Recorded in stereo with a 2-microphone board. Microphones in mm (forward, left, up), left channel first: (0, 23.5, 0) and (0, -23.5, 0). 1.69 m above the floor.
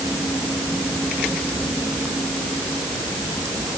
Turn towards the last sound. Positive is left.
No sound to turn to.